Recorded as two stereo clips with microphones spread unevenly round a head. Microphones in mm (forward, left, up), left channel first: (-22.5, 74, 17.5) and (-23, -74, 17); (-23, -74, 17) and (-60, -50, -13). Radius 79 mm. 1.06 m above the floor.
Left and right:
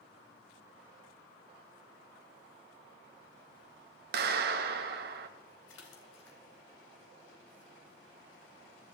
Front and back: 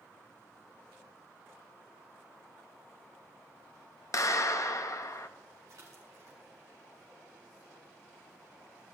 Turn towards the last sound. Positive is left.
turn(degrees=85)